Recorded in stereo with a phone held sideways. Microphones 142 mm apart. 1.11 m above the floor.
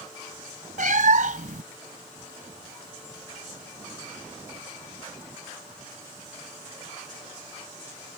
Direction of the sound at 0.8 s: 65° right (ahead or behind).